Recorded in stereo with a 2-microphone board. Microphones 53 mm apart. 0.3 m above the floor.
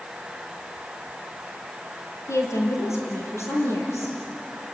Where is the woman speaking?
65° left (ahead or behind), 6.5 m; by 4.2 s 60° left (ahead or behind), 8.5 m.